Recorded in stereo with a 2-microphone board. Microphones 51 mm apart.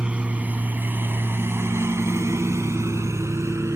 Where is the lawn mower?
20° right (ahead or behind); by 3.8 s 65° right (ahead or behind).